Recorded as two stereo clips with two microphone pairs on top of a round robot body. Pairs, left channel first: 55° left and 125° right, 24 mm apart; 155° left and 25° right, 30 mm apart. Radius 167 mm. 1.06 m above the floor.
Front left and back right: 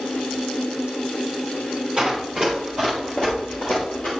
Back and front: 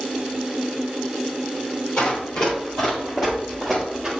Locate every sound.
2.0 s running footsteps: 160° left, 1.9 m; by 4.1 s 55° left, 1.5 m